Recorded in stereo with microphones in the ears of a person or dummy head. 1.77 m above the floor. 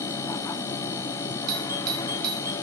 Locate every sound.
0.0 s a machine running: 20° left (ahead or behind), 0.9 m
1.5 s a doorbell: 45° right (ahead or behind), 1.3 m